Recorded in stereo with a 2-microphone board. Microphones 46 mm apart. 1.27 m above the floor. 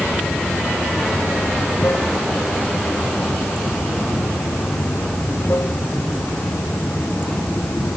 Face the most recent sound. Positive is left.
turn(degrees=55)  # may be behind; listen again after turning